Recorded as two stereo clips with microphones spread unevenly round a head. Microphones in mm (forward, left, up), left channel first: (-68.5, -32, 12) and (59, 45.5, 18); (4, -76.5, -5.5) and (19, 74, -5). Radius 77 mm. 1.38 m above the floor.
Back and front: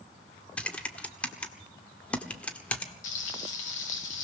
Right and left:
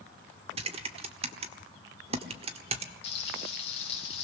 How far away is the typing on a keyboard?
About 1.4 m.